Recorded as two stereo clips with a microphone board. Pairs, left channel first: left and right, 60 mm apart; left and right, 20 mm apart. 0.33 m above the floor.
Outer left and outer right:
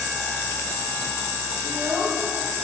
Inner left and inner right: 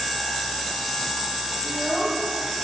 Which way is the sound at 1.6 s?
50° right (ahead or behind).